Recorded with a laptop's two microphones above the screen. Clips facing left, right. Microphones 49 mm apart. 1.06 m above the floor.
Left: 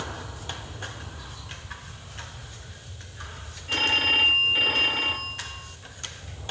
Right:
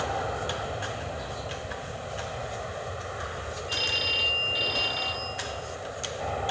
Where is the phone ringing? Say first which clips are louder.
Left 7 dB; 40° left (ahead or behind).